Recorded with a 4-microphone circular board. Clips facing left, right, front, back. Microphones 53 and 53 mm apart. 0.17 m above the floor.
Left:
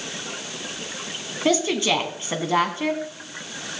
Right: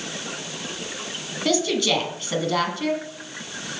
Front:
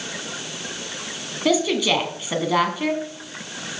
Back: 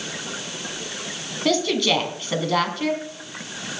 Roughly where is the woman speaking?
Ahead left.